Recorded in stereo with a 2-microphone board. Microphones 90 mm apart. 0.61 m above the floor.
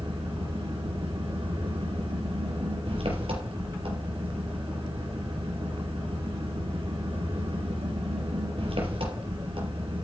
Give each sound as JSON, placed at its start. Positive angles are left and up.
{"t": 0.0, "sound": "an engine running", "side_deg": -90, "distance_m": 4.5}